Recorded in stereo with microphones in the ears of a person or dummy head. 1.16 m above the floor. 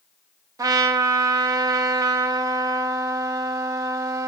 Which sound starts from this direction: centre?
A trumpet, at 0.6 s.